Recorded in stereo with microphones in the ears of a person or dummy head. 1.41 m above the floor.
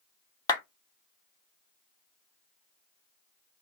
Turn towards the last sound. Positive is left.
turn(degrees=20)  # may be behind; listen again after turning